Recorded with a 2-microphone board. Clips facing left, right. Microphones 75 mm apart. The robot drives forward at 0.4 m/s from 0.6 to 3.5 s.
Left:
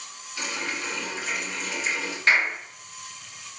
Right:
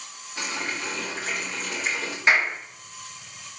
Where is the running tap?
40° right (ahead or behind), 3 m; by 2.2 s 50° right (ahead or behind), 2.5 m.